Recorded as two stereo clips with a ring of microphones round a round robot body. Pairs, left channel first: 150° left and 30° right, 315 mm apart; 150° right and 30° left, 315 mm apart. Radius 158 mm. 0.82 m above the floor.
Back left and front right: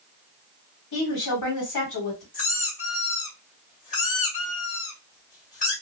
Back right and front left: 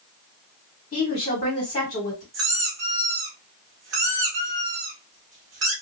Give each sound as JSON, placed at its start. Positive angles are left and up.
{"t": 0.9, "sound": "a woman speaking", "azimuth_deg": 150, "distance_m": 1.4}
{"t": 2.3, "sound": "a squeak", "azimuth_deg": 85, "distance_m": 1.5}